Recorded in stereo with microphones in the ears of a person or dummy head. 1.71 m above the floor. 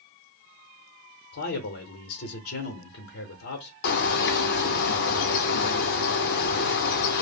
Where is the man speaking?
70° left (ahead or behind), 0.7 m.